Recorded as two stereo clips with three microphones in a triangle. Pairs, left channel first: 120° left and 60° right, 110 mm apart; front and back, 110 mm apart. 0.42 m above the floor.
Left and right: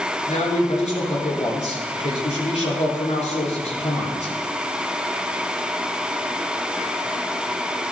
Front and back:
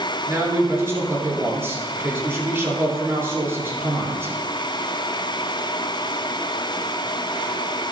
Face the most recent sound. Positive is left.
turn(degrees=110)